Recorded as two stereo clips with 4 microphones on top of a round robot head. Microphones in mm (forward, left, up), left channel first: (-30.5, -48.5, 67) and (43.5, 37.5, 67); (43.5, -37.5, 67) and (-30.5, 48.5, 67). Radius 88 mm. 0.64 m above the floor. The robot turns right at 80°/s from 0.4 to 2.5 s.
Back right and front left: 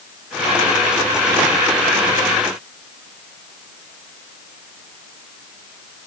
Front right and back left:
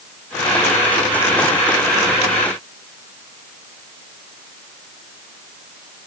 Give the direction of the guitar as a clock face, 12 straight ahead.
I don't hear a guitar.